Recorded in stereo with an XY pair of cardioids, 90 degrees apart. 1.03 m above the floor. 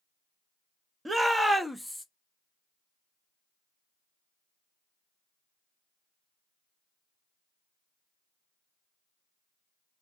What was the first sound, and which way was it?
A shout, 15° right.